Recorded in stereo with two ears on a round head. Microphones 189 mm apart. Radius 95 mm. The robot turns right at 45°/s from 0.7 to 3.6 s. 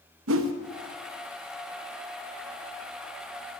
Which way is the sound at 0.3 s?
70° right (ahead or behind).